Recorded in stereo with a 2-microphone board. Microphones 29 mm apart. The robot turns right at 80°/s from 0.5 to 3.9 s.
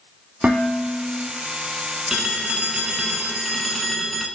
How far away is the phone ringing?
About 1.3 m.